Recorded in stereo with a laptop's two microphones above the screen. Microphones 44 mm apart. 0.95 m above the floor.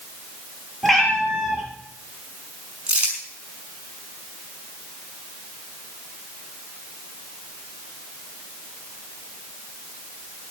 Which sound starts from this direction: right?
Crumpling, at 2.9 s.